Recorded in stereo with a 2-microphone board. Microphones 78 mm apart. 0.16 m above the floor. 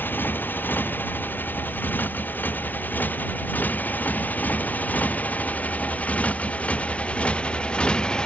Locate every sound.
0.0 s a motorcycle: 25° left (ahead or behind); by 8.3 s 10° left (ahead or behind)